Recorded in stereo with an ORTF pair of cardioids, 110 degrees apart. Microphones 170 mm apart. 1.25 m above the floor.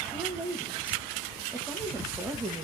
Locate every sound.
0.1 s a woman speaking: 10° right, 1.9 m